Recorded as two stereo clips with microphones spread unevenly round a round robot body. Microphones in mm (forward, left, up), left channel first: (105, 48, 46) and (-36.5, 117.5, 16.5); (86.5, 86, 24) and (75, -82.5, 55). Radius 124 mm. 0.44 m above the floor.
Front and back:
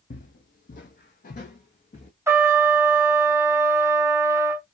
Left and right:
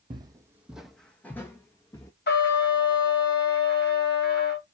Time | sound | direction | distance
0.1 | footsteps | 45° right | 0.7 m
2.3 | a trumpet | 80° left | 1.3 m